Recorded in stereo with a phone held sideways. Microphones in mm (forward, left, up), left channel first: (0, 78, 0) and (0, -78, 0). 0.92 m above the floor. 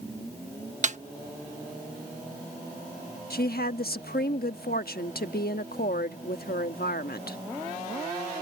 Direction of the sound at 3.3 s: 80° left.